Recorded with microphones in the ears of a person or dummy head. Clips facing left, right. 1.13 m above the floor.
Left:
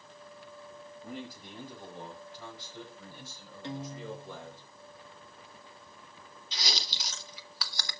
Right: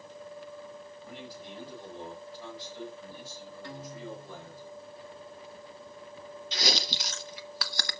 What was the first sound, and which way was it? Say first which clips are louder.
A man speaking: left 4 dB; 45° left (ahead or behind).